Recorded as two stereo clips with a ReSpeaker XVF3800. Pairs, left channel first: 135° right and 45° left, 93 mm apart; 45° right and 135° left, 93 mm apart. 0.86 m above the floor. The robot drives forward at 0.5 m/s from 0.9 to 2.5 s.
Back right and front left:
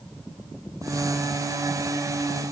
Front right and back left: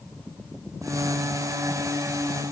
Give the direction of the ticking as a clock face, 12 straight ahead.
No ticking in this recording.